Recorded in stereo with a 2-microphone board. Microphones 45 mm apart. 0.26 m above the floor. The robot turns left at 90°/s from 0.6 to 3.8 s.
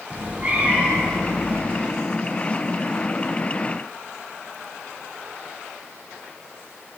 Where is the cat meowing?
140° right, 1.0 m; by 1.6 s 130° left, 1.0 m.